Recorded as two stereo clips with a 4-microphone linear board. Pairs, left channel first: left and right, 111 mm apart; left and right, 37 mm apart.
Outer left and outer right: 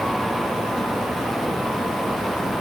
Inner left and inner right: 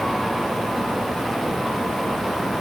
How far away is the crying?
I don't hear crying.